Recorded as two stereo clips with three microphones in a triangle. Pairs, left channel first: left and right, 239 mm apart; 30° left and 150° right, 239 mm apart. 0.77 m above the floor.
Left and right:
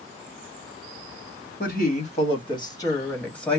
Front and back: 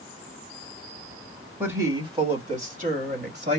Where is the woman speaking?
130° left, 1.2 m; by 3.6 s straight behind, 1.6 m.